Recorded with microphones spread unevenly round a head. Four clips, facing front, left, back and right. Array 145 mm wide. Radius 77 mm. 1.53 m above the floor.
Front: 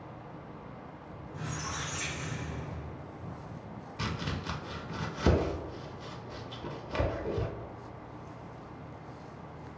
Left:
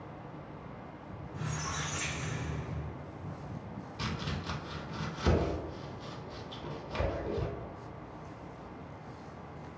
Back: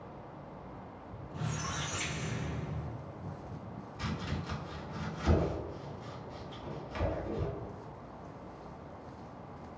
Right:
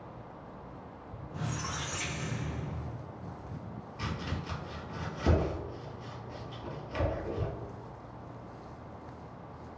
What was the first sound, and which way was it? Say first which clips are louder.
A squeak: right 1 dB, even; 110° right.